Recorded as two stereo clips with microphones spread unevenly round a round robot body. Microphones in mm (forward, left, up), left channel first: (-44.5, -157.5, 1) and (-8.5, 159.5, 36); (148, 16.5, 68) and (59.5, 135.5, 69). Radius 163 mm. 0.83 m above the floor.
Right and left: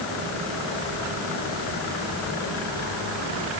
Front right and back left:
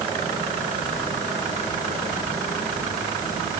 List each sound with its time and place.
Only background noise.